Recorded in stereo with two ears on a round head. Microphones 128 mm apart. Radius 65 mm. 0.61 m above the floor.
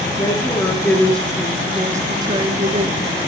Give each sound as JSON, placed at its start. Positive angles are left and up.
{"t": 0.1, "sound": "a woman speaking", "side_deg": 30, "distance_m": 1.2}